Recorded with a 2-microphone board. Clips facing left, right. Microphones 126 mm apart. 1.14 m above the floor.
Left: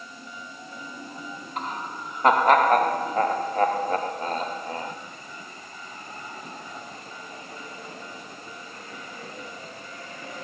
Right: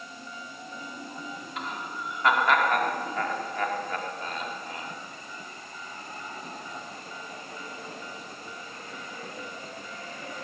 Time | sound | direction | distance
1.6 | laughter | 45° left (ahead or behind) | 3 m